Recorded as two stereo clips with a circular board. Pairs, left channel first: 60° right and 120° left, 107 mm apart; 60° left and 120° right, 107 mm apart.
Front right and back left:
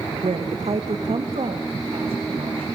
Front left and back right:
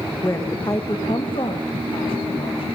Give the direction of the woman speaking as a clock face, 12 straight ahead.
8 o'clock.